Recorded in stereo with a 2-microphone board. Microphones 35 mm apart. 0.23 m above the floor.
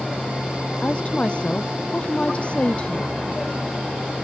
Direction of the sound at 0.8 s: 35° left (ahead or behind).